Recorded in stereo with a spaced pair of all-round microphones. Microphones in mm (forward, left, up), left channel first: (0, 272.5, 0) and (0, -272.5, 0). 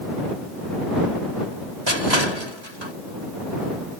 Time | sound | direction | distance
1.9 | crushing | 50° right (ahead or behind) | ?